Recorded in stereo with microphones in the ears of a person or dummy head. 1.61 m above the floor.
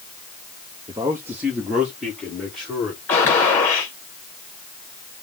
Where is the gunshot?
15° left (ahead or behind), 0.9 m.